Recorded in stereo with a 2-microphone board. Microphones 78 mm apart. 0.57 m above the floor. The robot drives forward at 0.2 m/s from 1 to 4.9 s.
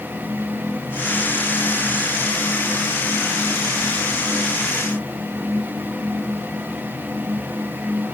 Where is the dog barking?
No dog barking in this recording.